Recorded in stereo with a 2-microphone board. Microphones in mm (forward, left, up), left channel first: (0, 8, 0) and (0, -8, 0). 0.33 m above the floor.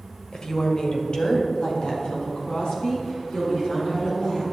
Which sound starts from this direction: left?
A woman speaking, at 0.3 s.